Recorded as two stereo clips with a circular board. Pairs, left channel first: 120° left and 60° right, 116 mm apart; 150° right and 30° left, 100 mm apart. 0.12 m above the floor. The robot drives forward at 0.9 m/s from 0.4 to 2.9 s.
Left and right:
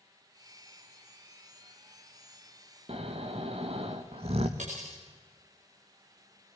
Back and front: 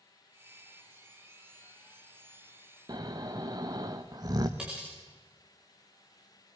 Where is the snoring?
25° right, 2 m.